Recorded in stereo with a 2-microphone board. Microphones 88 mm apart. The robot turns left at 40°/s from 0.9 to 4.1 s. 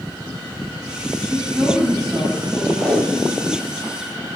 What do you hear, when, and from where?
1.3 s a woman speaking: 150° right, 9.5 m; by 2.7 s 155° left, 9.5 m
2.8 s tape being pulled: 20° left, 4 m; by 3.8 s 20° right, 4 m